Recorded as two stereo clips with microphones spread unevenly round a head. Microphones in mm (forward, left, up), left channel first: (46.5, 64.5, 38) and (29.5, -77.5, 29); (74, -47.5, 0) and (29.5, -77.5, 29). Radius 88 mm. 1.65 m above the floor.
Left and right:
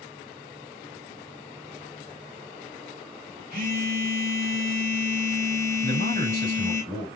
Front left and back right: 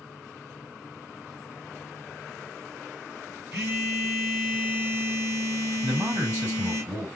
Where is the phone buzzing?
150° right, 3 m.